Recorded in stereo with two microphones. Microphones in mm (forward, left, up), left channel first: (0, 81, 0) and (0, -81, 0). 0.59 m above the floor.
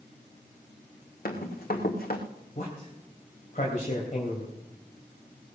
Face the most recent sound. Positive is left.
turn(degrees=50)  # may be behind; listen again after turning